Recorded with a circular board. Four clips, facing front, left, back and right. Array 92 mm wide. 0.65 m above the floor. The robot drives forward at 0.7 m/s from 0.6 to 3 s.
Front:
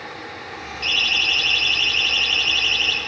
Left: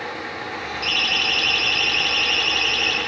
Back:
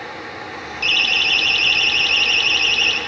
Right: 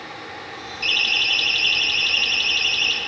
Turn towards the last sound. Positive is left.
turn(degrees=175)